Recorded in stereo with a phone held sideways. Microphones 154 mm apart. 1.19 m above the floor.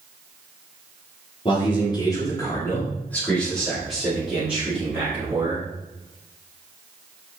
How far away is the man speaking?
About 3.5 m.